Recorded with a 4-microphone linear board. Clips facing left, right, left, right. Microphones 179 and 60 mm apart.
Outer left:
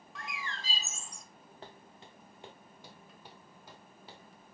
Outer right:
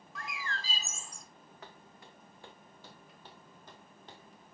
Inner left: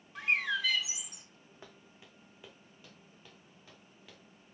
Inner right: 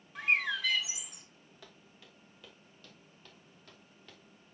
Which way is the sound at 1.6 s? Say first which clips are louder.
Outer left 2 dB, inner left 2 dB; 30° left (ahead or behind).